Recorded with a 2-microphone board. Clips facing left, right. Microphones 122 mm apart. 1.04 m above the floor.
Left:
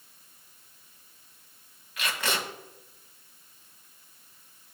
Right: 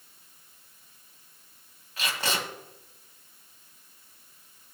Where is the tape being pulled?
35° right (ahead or behind), 1.9 m.